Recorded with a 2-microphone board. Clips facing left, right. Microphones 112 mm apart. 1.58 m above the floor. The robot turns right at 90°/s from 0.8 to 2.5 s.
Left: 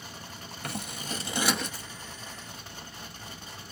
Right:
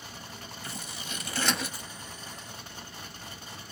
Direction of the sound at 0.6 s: 60° left (ahead or behind).